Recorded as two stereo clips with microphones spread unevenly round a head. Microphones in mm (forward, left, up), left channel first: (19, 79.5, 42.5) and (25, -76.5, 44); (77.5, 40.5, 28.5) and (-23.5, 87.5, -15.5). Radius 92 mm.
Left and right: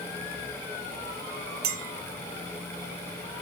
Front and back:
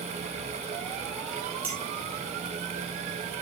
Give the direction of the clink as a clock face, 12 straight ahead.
4 o'clock.